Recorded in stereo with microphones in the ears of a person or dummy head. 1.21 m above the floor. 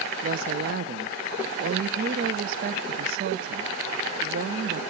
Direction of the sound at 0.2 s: 55° right (ahead or behind).